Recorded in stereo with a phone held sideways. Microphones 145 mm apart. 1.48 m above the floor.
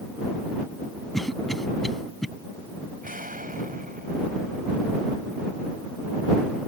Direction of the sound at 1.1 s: Centre (ahead or behind).